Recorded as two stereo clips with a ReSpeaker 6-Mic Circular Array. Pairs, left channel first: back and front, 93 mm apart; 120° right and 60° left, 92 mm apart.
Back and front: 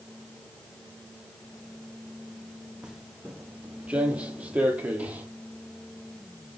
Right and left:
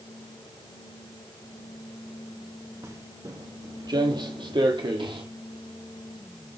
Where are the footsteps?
75° left, 1.1 m; by 5.2 s 70° left, 2 m.